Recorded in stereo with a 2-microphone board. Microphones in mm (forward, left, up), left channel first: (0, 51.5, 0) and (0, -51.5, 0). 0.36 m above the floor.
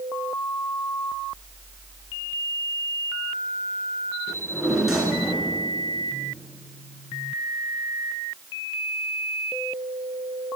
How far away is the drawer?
About 3 m.